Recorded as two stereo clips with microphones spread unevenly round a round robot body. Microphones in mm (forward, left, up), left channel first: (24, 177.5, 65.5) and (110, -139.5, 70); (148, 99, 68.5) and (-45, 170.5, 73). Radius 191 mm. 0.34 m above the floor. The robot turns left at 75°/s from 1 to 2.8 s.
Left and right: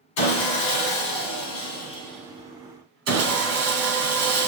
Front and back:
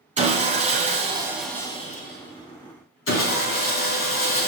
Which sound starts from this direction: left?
Sawing, at 0.2 s.